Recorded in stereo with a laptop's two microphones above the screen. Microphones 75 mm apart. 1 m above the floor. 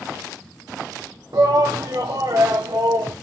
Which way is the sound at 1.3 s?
60° right (ahead or behind).